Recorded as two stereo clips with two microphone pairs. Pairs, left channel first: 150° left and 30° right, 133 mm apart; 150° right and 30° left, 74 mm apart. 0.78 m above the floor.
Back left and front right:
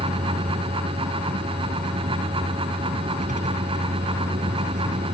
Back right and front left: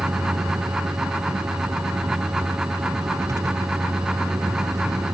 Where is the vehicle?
15° right.